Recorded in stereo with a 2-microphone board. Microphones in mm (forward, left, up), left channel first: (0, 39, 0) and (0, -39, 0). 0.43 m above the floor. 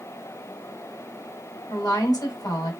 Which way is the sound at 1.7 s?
60° left (ahead or behind).